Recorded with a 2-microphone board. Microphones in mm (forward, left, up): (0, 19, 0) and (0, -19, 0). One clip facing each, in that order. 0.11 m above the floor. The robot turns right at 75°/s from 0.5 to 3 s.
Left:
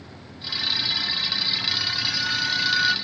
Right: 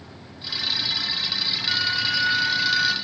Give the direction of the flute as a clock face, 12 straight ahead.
3 o'clock.